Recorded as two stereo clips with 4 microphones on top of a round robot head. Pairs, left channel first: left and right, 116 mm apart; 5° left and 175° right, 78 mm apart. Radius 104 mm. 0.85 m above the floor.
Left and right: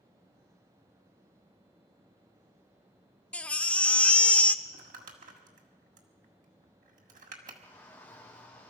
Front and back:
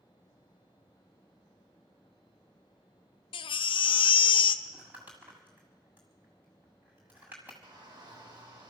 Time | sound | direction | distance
3.3 | a baby crying | 10° left | 0.5 m
4.7 | crumpling | 100° right | 1.6 m
7.6 | a shout | 160° left | 4.5 m